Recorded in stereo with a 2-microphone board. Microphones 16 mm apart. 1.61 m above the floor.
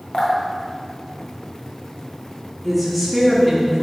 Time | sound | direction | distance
0.1 | dripping | 65° left (ahead or behind) | 1.1 m
2.6 | a woman speaking | 5° right (ahead or behind) | 1.4 m